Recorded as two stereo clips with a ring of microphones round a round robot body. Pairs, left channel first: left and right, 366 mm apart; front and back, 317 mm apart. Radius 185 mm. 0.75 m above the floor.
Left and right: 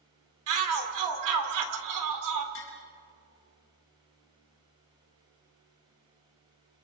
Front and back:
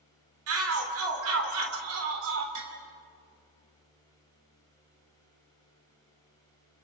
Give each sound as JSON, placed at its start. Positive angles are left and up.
{"t": 0.5, "sound": "a shout", "azimuth_deg": -130, "distance_m": 3.0}
{"t": 2.5, "sound": "tapping", "azimuth_deg": 150, "distance_m": 4.5}